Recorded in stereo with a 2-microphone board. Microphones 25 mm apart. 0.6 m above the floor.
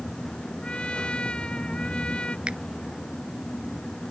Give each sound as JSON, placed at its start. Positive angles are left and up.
{"t": 0.6, "sound": "a trumpet", "side_deg": 45}
{"t": 2.5, "sound": "a finger snap", "side_deg": -45}